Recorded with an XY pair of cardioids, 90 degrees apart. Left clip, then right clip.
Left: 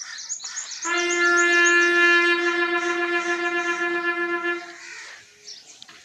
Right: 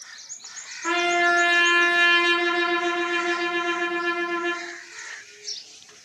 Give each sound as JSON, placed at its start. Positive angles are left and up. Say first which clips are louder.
{"t": 0.8, "sound": "a trumpet", "louder": "even", "azimuth_deg": -15, "distance_m": 1.1}